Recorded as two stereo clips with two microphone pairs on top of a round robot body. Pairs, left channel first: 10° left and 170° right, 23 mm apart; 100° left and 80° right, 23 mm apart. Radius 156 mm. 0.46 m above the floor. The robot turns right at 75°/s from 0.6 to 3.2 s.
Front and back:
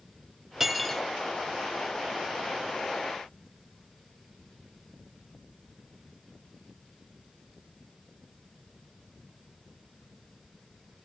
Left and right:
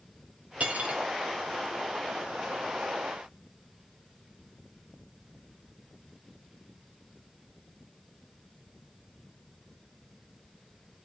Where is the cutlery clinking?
95° right, 2.5 m; by 1.0 s 65° right, 2.5 m.